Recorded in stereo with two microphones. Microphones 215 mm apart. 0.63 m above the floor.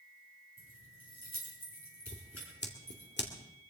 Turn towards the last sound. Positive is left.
turn(degrees=55)  # may be behind; listen again after turning